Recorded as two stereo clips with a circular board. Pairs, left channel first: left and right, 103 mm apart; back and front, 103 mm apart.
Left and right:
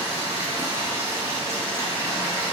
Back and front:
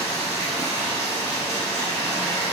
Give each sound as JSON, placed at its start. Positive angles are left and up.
{"t": 0.0, "sound": "running water", "azimuth_deg": -145, "distance_m": 1.5}